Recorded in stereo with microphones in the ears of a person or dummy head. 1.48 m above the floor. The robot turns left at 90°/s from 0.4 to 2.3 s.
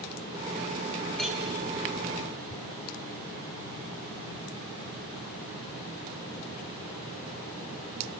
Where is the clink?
5° left (ahead or behind), 1.1 m; by 1.4 s 10° right (ahead or behind), 1.1 m.